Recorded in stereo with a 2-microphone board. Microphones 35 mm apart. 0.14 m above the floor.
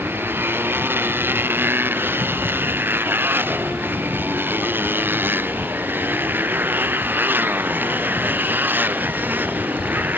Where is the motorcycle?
70° right (ahead or behind); by 10.2 s 55° right (ahead or behind).